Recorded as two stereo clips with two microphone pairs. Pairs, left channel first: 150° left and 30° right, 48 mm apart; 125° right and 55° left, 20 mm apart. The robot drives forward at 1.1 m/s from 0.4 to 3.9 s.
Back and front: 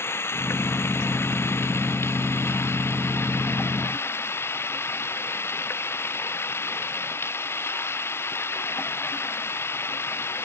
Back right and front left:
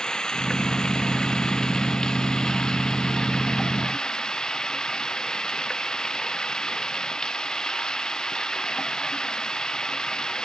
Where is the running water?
175° right.